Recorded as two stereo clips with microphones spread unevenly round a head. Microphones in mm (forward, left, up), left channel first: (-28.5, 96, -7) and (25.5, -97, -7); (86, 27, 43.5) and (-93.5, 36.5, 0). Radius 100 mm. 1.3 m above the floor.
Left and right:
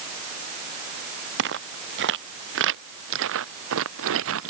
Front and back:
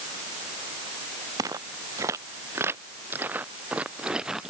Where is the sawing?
I don't hear sawing.